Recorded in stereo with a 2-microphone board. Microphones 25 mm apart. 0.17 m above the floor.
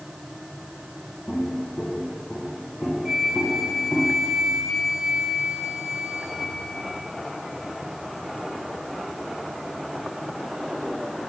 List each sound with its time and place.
1.3 s footsteps: 60° left (ahead or behind), 5.5 m; by 4.0 s 35° left (ahead or behind), 6.5 m
3.0 s a flute: 5° right (ahead or behind), 2 m